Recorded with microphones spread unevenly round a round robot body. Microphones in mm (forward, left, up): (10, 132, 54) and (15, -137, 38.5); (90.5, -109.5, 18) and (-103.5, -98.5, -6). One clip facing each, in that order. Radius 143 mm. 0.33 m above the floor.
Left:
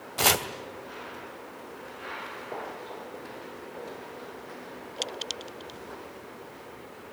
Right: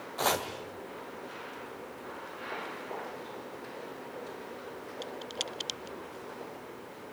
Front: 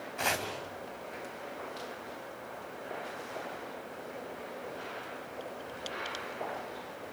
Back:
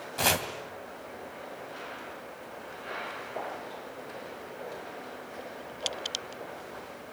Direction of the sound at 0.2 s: 130° left.